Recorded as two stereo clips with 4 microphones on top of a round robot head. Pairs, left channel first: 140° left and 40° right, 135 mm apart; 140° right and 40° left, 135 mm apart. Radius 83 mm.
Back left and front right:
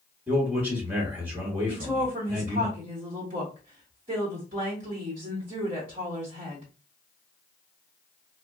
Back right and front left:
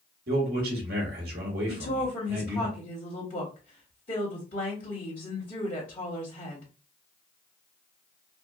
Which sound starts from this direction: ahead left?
A man speaking, at 0.3 s.